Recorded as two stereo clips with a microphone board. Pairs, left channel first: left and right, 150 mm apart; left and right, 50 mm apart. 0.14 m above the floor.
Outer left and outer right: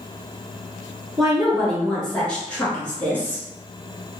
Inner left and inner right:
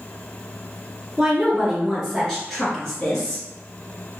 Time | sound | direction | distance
1.2 | a woman speaking | centre (ahead or behind) | 1.6 m